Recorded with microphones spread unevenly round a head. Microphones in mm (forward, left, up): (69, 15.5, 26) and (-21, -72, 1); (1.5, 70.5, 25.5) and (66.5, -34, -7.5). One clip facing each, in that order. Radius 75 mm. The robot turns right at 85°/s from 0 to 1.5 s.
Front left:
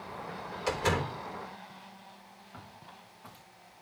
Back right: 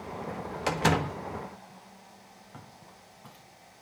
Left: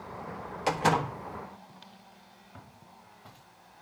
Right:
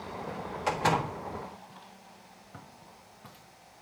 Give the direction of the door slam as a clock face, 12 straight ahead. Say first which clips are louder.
Back right 3 dB, left 2 dB; 6 o'clock.